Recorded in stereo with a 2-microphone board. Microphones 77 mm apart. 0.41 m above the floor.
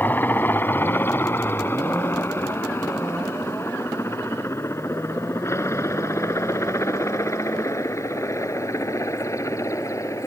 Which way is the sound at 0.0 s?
25° left (ahead or behind).